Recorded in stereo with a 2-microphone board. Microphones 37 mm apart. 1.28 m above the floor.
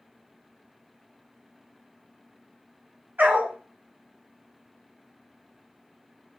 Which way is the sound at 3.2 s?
60° right (ahead or behind).